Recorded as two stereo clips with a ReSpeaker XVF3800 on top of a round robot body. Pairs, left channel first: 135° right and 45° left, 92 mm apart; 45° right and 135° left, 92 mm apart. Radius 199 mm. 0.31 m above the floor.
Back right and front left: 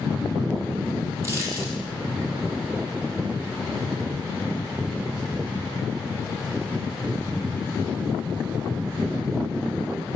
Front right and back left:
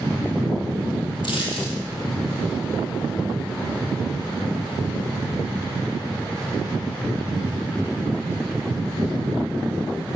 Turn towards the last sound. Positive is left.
turn(degrees=-15)